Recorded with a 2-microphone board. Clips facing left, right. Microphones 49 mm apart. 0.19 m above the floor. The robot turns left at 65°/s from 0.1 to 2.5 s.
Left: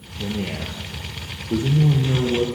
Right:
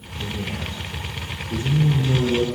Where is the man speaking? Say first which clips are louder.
Left 2 dB; 145° left, 4 m; by 2.5 s 5° right, 4 m.